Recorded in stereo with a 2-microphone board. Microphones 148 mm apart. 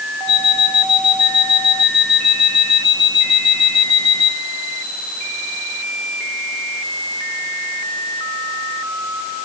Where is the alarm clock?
35° left (ahead or behind), 4 m.